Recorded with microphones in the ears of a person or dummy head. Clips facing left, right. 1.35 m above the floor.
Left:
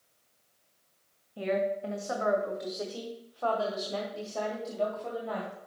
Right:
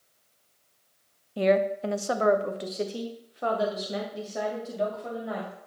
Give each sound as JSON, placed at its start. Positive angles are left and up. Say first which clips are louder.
{"t": 1.4, "sound": "a woman speaking", "louder": "right 6 dB", "side_deg": -80, "distance_m": 0.7}